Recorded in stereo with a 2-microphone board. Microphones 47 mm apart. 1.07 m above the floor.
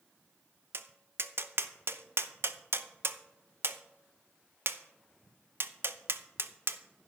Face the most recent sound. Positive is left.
turn(degrees=-55)  # may be behind; listen again after turning